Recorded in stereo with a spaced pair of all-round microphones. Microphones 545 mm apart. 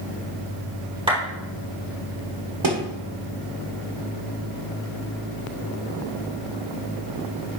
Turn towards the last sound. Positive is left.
turn(degrees=-55)  # may be behind; listen again after turning